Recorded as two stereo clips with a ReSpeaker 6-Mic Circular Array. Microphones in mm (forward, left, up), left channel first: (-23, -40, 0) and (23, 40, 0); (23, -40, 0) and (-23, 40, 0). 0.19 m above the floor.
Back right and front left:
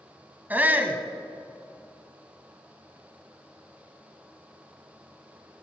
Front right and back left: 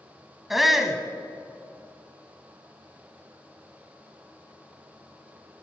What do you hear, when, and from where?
0.5 s a shout: 35° left, 1.0 m